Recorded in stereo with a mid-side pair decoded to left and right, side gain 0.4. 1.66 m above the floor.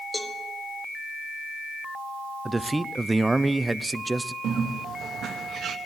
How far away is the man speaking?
About 0.6 m.